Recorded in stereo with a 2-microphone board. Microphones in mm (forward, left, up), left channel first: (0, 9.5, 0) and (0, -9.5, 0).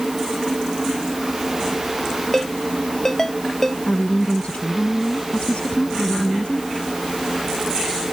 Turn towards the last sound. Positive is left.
turn(degrees=75)  # may be behind; listen again after turning